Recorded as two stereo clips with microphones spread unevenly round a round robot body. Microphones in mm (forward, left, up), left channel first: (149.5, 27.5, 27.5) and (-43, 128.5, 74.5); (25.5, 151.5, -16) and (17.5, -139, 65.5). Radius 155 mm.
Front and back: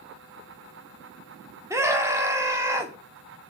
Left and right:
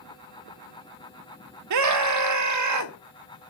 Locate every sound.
1.7 s a scream: 120° right, 1.1 m